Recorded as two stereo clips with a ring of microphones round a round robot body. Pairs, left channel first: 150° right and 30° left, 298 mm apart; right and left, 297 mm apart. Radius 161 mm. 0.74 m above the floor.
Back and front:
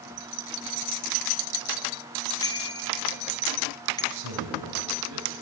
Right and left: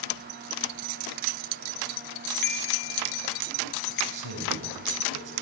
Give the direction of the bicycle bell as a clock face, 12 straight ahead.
2 o'clock.